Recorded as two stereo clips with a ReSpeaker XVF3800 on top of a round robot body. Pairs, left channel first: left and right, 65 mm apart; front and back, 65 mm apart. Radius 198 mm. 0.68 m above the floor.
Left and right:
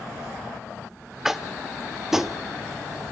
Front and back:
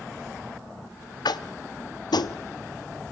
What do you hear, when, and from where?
1.2 s tapping: 5° right, 0.8 m